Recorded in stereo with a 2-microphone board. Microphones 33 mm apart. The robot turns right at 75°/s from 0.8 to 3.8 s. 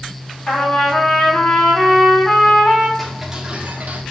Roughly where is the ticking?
Behind.